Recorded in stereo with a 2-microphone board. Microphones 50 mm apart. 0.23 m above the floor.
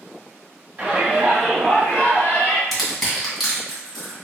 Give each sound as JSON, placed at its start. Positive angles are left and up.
{"t": 0.8, "sound": "a shout", "side_deg": -35, "distance_m": 1.7}
{"t": 2.7, "sound": "crushing", "side_deg": 0, "distance_m": 2.0}